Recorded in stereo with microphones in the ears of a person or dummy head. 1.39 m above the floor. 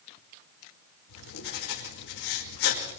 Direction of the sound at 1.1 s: 70° left (ahead or behind).